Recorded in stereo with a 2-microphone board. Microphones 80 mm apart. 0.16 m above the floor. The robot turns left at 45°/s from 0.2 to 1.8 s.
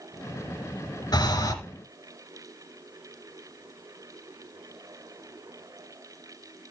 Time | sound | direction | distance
1.1 | breathing | 60° left (ahead or behind) | 2 m